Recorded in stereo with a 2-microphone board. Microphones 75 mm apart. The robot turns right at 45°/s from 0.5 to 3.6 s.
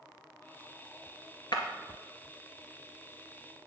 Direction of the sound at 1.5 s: 65° left (ahead or behind).